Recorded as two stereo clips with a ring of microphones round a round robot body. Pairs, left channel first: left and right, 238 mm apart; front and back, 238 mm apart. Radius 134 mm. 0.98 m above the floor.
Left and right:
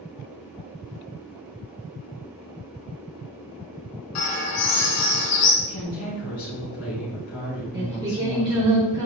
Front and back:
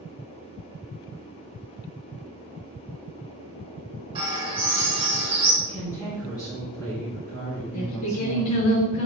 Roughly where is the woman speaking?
Left.